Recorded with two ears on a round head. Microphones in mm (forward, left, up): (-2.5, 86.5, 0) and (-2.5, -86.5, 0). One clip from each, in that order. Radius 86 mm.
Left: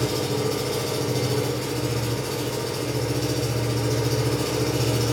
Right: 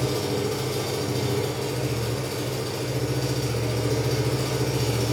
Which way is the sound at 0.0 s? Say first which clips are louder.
Left 1 dB; 5° left (ahead or behind).